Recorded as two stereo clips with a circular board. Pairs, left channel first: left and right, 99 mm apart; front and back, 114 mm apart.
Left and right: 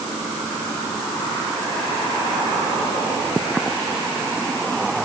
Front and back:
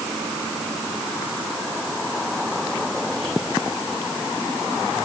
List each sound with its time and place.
Only background noise.